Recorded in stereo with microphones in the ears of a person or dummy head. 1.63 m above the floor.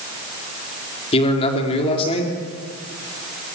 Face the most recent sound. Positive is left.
turn(degrees=30)  # may be behind; listen again after turning